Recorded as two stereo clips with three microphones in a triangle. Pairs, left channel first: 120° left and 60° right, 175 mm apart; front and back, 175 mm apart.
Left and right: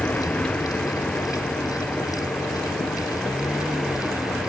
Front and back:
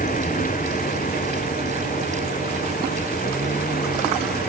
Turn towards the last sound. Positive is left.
turn(degrees=30)